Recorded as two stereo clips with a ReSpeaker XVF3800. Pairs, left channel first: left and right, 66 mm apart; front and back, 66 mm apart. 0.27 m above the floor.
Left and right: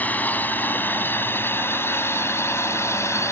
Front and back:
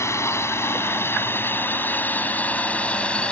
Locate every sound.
0.0 s a drone: 35° left; by 3.3 s 70° left